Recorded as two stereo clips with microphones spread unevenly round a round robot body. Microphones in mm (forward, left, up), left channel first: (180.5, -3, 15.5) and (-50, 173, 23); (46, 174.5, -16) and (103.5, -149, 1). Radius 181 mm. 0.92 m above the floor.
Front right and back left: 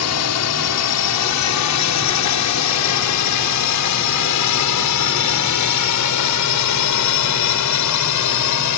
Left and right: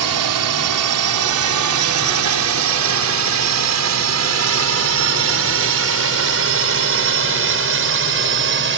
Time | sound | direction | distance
0.0 | a drone | 65° right | ?